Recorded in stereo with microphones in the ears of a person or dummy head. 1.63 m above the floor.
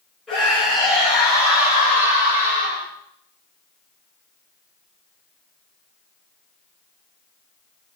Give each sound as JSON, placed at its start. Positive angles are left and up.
{"t": 0.3, "sound": "a scream", "side_deg": 5, "distance_m": 7.5}